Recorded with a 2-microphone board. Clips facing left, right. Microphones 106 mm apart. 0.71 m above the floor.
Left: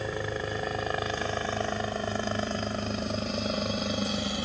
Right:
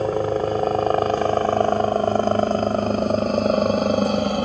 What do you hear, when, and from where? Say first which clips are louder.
0.0 s a helicopter: right 12 dB; 45° right (ahead or behind); by 4.5 s 50° right (ahead or behind)